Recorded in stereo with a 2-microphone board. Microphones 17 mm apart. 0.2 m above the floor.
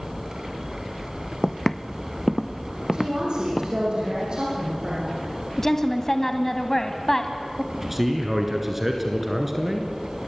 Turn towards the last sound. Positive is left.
turn(degrees=-15)  # may be behind; listen again after turning